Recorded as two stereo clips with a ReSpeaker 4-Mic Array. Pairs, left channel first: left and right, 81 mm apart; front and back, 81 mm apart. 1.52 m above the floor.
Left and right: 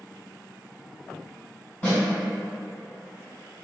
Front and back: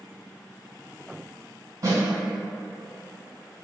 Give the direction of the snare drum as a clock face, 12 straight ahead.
7 o'clock.